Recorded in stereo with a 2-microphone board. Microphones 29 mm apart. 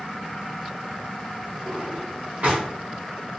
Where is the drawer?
55° right (ahead or behind), 1.2 m.